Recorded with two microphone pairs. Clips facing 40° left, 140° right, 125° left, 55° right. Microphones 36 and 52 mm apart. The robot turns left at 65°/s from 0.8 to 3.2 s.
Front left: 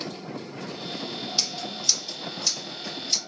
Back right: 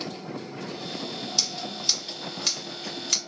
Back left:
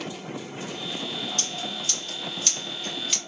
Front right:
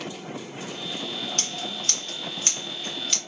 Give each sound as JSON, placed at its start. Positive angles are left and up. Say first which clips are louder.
{"t": 1.4, "sound": "scissors", "louder": "even, even", "azimuth_deg": -35, "distance_m": 2.0}